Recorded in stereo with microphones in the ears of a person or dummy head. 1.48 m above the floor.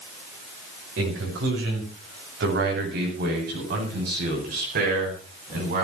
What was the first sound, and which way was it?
A man speaking, 70° right (ahead or behind).